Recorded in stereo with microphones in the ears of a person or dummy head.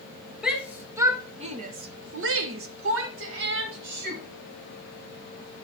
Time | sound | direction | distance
0.4 | a shout | 5° right (ahead or behind) | 1.5 m